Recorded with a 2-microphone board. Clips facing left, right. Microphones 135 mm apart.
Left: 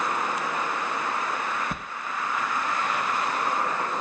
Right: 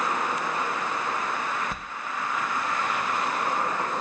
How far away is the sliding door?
About 2.5 m.